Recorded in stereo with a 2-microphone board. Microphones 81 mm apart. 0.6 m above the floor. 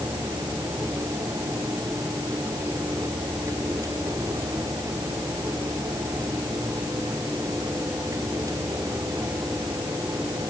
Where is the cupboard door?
I don't hear a cupboard door.